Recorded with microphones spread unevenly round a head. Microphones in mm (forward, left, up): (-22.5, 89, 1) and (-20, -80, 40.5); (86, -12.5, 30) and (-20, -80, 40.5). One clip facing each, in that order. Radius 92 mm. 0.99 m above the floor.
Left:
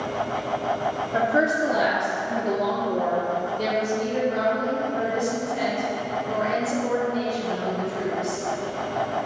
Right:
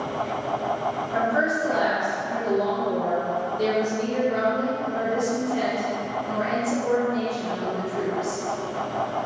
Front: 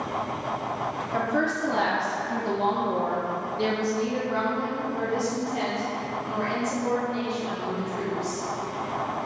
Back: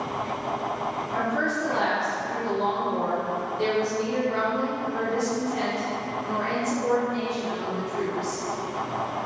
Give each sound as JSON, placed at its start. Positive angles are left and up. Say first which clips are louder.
{"t": 1.1, "sound": "a woman speaking", "louder": "left 2 dB, front 2 dB", "azimuth_deg": 55, "distance_m": 1.5}